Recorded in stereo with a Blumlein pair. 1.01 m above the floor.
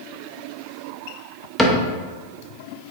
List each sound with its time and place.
1.6 s a cupboard door: 10° left, 0.7 m